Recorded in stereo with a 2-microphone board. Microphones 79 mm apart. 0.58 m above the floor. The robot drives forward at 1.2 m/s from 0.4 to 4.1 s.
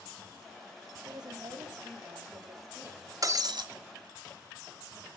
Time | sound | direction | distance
1.0 | a woman speaking | 60° right (ahead or behind) | 2.5 m
3.2 | breaking glass | 45° right (ahead or behind) | 1.2 m